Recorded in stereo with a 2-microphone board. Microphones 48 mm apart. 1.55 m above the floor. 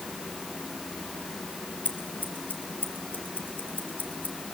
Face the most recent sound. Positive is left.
turn(degrees=40)  # may be behind; listen again after turning